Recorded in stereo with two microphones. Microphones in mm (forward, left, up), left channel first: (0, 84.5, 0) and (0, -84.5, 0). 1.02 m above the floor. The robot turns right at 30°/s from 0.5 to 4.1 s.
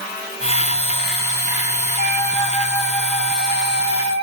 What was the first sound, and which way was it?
A flute, 140° left.